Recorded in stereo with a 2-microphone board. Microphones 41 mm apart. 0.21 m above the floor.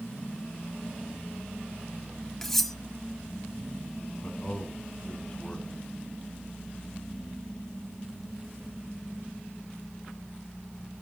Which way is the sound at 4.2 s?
20° left (ahead or behind).